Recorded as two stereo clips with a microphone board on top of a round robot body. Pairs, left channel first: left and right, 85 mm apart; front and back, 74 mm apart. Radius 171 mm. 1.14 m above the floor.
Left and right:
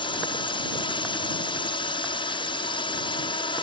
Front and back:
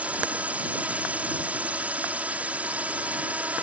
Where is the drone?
110° left.